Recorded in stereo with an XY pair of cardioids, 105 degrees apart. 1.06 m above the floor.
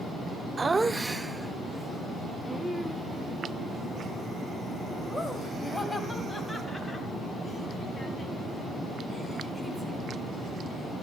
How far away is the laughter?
About 0.8 m.